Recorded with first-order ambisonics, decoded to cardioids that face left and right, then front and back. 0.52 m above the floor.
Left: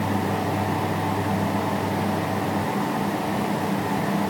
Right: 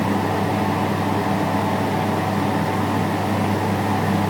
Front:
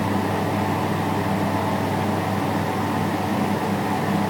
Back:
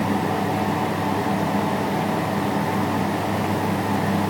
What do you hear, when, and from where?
Only background noise.